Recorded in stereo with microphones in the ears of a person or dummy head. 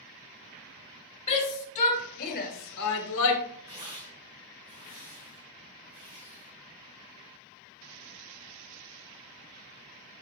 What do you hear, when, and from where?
1.3 s a shout: 35° left (ahead or behind), 3.5 m; by 3.4 s 70° left (ahead or behind), 1.6 m
3.7 s tearing paper: 30° right (ahead or behind), 4 m